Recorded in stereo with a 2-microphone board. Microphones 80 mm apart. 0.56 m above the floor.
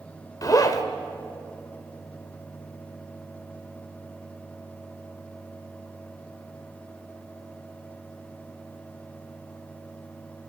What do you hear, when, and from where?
0.4 s a zipper: 45° left (ahead or behind), 2 m